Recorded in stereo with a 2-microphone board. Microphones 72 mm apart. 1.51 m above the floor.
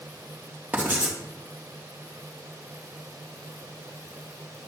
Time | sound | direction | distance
0.7 | writing | 25° right (ahead or behind) | 1.8 m